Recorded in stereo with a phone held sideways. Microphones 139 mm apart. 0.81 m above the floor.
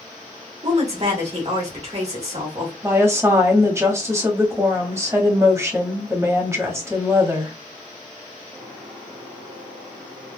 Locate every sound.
0.6 s a woman speaking: 50° right (ahead or behind), 1.7 m
2.8 s a woman speaking: 20° right (ahead or behind), 1.2 m